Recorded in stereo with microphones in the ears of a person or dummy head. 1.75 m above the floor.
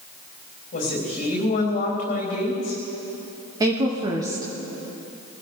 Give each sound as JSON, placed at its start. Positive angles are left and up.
{"t": 0.7, "sound": "a woman speaking", "side_deg": 40, "distance_m": 4.0}
{"t": 3.6, "sound": "a woman speaking", "side_deg": -20, "distance_m": 1.3}